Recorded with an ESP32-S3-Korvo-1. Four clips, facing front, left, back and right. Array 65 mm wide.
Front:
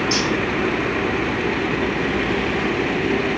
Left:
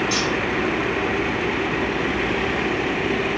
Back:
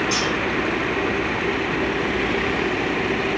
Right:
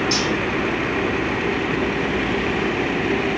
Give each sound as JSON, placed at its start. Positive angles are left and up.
{"t": 0.1, "sound": "cutlery clinking", "azimuth_deg": -105, "distance_m": 4.0}